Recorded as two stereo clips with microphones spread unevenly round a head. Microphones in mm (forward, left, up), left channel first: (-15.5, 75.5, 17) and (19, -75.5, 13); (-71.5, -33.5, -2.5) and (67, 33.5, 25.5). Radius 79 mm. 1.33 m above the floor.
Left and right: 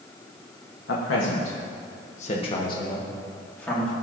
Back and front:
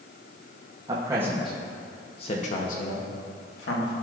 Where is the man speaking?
90° left, 0.9 m; by 3.9 s 175° right, 1.8 m.